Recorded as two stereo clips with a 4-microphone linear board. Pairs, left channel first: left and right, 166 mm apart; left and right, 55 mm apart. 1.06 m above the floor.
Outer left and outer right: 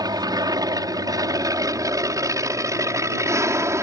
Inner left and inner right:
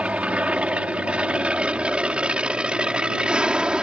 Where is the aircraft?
25° right (ahead or behind); by 3.8 s 15° right (ahead or behind).